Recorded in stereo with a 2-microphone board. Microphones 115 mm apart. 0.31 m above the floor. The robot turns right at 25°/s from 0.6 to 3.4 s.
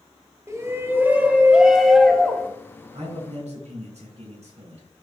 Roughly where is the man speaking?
Right.